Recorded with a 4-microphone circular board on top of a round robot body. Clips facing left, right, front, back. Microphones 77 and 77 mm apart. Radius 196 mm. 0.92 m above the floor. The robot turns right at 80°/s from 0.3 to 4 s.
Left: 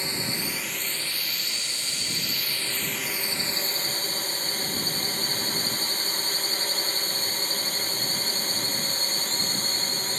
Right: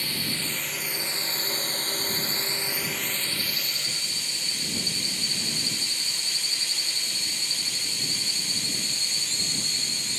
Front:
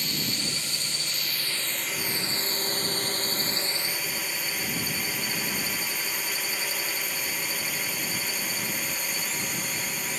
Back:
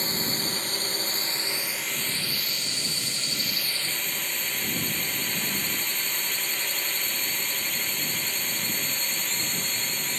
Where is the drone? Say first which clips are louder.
Left 1 dB, back 2 dB; 145° left; by 10.2 s 80° left.